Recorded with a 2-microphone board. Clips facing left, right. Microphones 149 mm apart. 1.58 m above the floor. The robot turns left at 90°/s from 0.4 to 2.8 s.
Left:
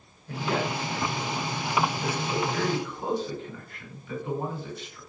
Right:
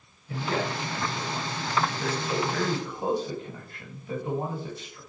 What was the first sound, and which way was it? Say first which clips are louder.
A man speaking: left 1 dB; 75° left.